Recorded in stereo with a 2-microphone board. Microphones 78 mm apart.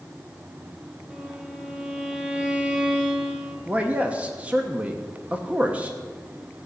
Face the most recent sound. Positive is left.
turn(degrees=-20)  # may be behind; listen again after turning